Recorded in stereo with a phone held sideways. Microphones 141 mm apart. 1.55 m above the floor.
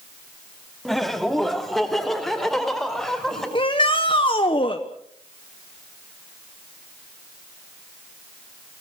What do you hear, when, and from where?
0.8 s laughter: centre (ahead or behind), 2.5 m
3.5 s a shout: 35° left (ahead or behind), 1.3 m